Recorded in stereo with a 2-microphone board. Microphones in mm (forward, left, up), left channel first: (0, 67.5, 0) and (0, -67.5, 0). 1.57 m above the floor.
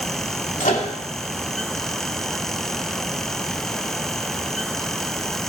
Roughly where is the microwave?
Left.